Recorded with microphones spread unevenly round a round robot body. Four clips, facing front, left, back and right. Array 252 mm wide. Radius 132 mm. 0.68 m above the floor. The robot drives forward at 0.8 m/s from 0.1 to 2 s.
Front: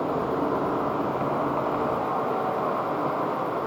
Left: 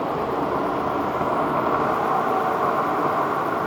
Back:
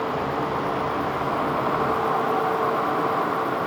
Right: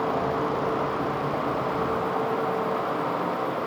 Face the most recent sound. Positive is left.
turn(degrees=115)